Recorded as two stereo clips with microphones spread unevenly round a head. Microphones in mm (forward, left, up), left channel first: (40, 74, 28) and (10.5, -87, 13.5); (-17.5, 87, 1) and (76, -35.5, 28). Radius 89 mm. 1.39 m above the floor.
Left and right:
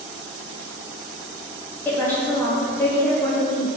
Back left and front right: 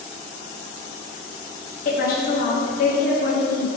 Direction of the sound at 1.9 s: 160° left.